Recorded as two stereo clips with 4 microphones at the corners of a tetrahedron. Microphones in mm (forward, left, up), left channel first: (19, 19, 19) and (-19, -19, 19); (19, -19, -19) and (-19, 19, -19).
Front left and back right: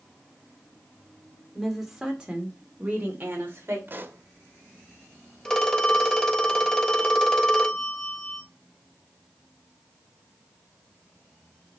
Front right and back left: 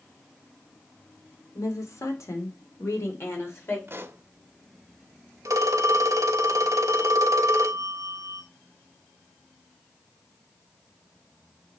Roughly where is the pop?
Behind.